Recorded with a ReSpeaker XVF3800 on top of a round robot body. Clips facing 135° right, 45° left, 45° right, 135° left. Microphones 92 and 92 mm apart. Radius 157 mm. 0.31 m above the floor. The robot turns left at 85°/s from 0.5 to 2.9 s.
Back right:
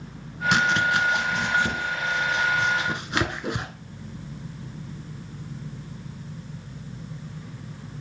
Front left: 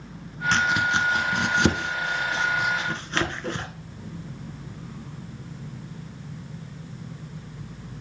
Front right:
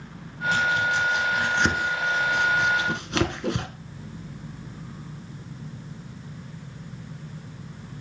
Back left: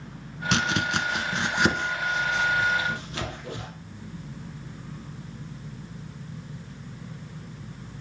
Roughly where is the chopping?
Behind left.